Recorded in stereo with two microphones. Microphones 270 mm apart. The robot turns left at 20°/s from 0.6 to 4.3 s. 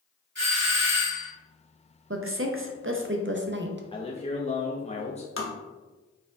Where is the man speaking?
20° left (ahead or behind), 0.5 m; by 5.3 s 25° left (ahead or behind), 0.5 m.